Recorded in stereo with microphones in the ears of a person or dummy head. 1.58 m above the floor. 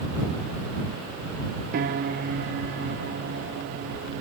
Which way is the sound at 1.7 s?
50° right (ahead or behind).